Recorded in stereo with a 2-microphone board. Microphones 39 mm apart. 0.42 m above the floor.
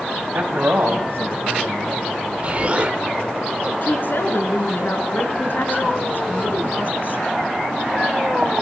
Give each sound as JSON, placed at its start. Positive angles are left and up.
{"t": 0.3, "sound": "a man speaking", "side_deg": -65, "distance_m": 2.5}
{"t": 2.4, "sound": "an explosion", "side_deg": -35, "distance_m": 1.2}
{"t": 3.8, "sound": "a woman speaking", "side_deg": 55, "distance_m": 4.5}